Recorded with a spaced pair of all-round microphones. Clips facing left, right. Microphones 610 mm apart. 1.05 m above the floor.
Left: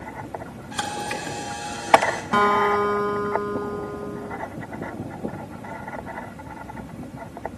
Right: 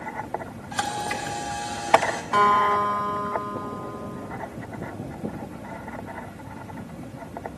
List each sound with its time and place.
0.7 s a camera shutter: 15° right (ahead or behind), 1.8 m
2.3 s a guitar: 65° left (ahead or behind), 1.6 m